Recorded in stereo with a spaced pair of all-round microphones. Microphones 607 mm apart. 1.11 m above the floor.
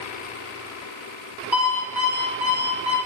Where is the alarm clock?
30° left (ahead or behind), 1.8 m.